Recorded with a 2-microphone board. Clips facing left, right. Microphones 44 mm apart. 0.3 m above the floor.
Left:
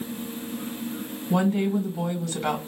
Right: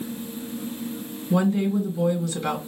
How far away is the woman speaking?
About 2 m.